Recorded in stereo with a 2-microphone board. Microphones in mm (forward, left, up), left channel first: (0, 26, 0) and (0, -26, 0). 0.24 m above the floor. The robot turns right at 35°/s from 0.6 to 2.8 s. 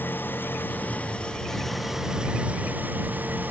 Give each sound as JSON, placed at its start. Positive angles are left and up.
{"t": 0.0, "sound": "an engine running", "azimuth_deg": 140}